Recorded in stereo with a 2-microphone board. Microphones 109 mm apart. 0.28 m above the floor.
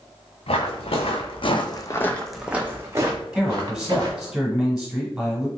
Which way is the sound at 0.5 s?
75° left (ahead or behind).